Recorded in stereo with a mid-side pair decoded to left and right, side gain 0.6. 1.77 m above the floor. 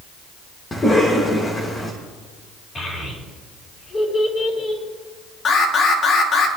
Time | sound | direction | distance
0.7 | a cough | 25° left | 2.5 m
2.8 | a child speaking | 25° left | 5 m
5.5 | an alarm | 45° left | 2.5 m